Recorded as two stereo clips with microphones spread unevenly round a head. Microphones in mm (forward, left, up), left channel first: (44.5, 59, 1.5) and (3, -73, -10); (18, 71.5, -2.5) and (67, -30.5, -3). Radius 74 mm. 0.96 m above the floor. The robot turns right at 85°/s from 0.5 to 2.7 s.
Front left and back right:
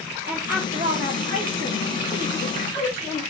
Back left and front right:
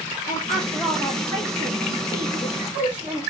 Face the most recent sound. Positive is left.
turn(degrees=5)